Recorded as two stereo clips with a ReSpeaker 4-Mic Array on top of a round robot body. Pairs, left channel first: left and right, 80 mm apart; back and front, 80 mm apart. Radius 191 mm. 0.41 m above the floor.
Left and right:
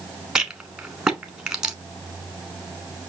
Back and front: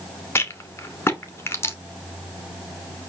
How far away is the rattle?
About 1.5 m.